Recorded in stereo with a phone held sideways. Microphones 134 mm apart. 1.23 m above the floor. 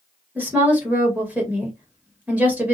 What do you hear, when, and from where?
0.3 s a woman speaking: 10° right (ahead or behind), 1.4 m